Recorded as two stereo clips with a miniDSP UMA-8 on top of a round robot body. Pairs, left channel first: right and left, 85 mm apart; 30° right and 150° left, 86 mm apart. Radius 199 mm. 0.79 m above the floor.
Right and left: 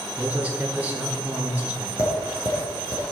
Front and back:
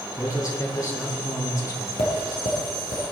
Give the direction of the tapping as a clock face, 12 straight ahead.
1 o'clock.